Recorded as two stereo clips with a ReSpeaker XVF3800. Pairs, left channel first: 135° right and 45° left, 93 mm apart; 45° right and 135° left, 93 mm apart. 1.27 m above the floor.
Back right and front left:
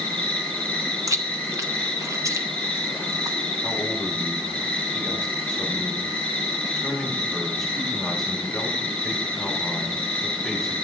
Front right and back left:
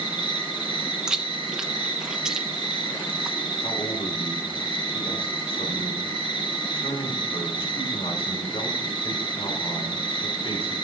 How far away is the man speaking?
About 2 m.